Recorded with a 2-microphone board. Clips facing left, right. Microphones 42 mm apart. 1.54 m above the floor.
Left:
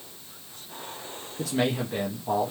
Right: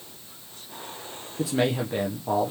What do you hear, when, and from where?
1.4 s a man speaking: 10° right (ahead or behind), 0.8 m